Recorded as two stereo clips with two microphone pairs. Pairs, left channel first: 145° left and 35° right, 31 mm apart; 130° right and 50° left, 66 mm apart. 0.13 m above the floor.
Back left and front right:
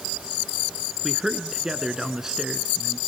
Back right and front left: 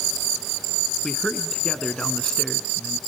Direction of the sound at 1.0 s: 80° right.